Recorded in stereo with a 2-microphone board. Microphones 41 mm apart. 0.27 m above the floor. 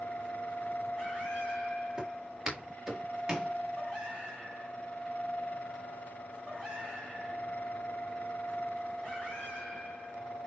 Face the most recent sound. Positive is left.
turn(degrees=-15)  # may be behind; listen again after turning